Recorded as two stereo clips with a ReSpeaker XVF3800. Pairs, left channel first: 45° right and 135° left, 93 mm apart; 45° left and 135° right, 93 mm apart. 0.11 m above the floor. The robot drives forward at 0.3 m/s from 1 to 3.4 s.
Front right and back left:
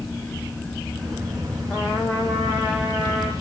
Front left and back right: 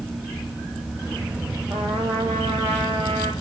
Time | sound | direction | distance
1.7 | a trumpet | 145° right | 3.5 m